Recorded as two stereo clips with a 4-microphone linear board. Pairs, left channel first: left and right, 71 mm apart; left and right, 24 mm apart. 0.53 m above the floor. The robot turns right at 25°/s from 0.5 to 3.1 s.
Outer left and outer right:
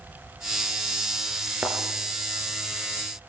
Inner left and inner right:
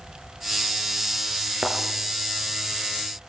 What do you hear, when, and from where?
1.6 s a thud: 20° right (ahead or behind), 4.5 m; by 1.8 s 25° right (ahead or behind), 4.5 m